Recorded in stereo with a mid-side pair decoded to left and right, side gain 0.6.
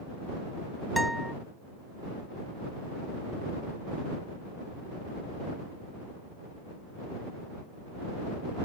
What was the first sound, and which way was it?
A guitar, straight ahead.